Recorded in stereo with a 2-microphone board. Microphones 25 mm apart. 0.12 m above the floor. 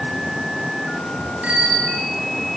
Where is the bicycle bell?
65° right (ahead or behind), 6 m.